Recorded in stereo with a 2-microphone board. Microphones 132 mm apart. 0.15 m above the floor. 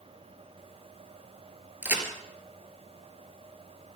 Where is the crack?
15° right (ahead or behind), 2.5 m.